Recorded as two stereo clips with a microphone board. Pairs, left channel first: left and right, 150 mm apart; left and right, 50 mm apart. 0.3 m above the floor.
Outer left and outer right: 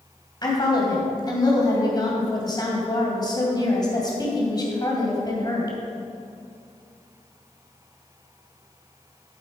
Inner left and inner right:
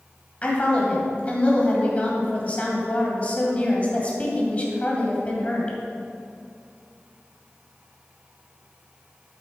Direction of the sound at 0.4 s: 30° left (ahead or behind).